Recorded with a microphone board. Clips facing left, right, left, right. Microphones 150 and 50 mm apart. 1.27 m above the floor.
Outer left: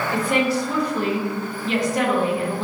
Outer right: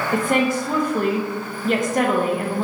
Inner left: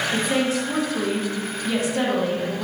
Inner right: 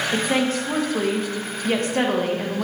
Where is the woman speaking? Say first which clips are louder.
Outer right 2 dB, inner right 1 dB; 50° right (ahead or behind), 0.6 m.